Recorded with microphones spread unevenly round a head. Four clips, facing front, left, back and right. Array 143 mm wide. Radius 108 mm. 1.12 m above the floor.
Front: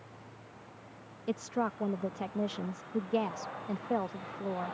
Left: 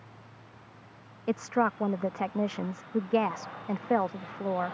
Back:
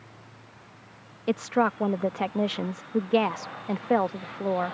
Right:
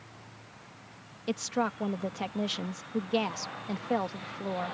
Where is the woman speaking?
170° left.